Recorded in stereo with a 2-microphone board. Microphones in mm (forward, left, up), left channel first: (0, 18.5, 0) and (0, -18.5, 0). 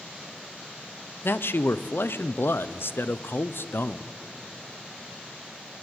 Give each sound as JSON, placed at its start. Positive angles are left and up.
{"t": 1.2, "sound": "a man speaking", "side_deg": 75, "distance_m": 0.9}